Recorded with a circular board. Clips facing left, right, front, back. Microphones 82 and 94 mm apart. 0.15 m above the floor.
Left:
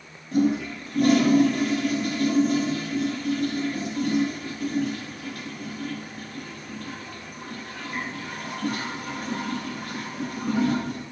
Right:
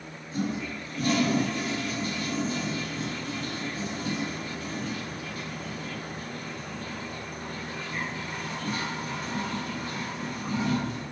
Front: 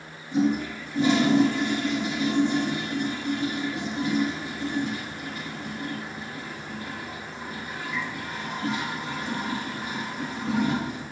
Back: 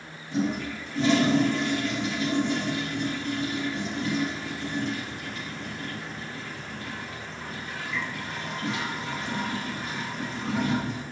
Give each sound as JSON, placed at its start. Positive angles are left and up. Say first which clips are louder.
{"t": 0.3, "sound": "a toilet flushing", "louder": "left 9 dB, front 4 dB", "azimuth_deg": 80, "distance_m": 4.0}